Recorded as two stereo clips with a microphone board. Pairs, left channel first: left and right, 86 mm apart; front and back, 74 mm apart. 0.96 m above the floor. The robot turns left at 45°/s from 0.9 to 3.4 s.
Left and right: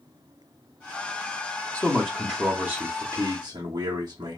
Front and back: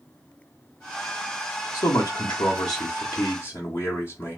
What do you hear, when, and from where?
1.7 s a man speaking: 25° left, 0.9 m; by 4.4 s 50° right, 0.9 m